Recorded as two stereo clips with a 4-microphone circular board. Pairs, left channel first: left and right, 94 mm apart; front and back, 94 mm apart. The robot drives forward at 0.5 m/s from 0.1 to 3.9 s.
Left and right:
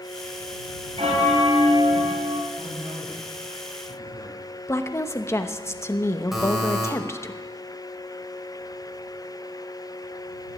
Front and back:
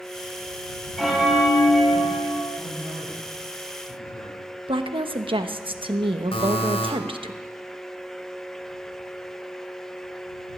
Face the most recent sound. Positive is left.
turn(degrees=-5)